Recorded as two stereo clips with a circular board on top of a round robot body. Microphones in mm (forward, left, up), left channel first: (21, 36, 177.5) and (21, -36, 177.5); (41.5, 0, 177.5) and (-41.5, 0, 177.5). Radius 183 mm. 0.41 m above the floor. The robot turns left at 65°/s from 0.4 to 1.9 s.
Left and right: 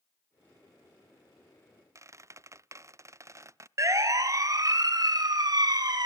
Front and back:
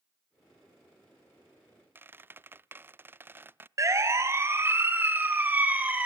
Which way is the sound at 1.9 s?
120° right.